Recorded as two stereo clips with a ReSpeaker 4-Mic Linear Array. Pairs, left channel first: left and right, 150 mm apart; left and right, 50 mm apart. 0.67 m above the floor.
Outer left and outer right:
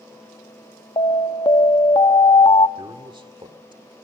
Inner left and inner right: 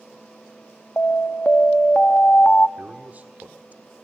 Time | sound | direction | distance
1.0 | an alarm | 35° left (ahead or behind) | 0.8 m
2.8 | a man speaking | 35° right (ahead or behind) | 1.6 m